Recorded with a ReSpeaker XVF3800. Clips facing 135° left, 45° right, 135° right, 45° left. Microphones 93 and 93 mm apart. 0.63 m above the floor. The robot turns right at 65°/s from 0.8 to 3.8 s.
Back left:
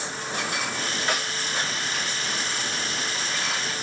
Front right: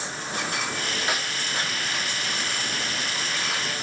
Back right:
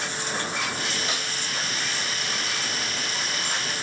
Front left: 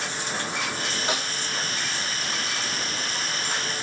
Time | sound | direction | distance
1.1 | a snare drum | 35° left | 1.1 m